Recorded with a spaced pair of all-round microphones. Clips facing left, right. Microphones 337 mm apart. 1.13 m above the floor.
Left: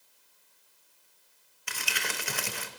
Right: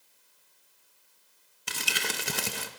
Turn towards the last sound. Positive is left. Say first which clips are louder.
# right 3 dB
turn(degrees=-45)  # may be behind; listen again after turning